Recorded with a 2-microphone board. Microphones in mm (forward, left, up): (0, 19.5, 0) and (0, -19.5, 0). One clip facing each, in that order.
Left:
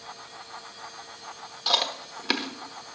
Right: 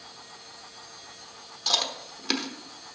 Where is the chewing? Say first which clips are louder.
Left 2 dB; 15° left (ahead or behind), 1.0 m.